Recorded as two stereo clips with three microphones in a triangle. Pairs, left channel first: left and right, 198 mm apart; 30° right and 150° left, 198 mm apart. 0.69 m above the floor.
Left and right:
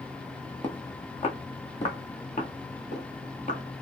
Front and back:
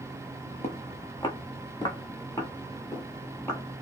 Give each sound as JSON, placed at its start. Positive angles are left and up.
{"t": 0.6, "sound": "footsteps", "azimuth_deg": 25, "distance_m": 1.9}